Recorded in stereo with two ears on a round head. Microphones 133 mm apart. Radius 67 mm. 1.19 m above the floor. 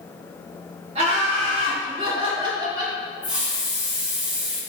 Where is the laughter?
45° right (ahead or behind), 4 m; by 3.0 s 25° right (ahead or behind), 2.5 m.